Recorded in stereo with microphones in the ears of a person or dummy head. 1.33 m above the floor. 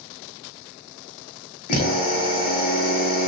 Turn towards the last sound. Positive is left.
turn(degrees=50)  # may be behind; listen again after turning